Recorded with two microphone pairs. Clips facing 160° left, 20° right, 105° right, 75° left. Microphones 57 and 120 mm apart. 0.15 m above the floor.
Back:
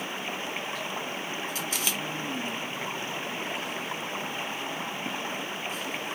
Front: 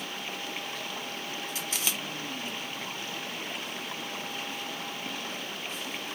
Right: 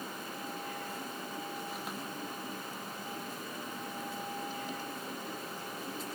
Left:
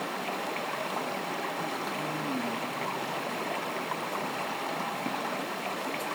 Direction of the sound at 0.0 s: 95° left.